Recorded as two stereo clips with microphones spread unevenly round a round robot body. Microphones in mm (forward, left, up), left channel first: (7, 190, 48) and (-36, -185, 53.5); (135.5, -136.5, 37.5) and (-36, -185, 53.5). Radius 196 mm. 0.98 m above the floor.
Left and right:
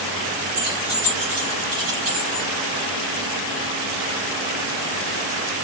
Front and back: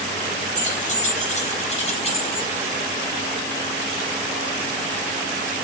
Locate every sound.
0.6 s keys jangling: 30° right, 5 m; by 2.5 s 40° right, 5 m